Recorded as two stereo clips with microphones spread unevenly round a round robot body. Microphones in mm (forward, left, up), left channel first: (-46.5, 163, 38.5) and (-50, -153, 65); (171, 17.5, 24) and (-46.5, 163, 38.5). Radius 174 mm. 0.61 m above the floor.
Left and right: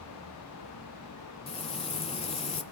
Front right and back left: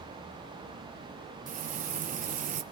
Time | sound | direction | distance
1.5 | frying | 125° left | 0.8 m